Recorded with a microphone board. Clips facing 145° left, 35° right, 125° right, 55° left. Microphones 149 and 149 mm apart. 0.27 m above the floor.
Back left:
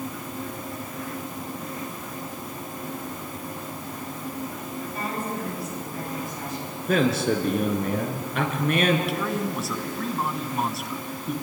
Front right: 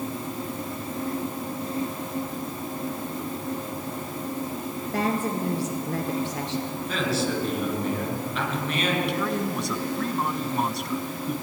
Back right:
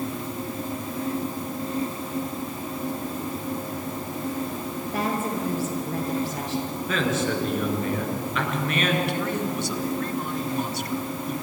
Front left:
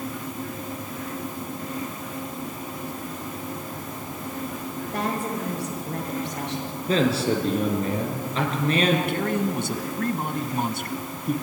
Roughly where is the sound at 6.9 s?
Behind left.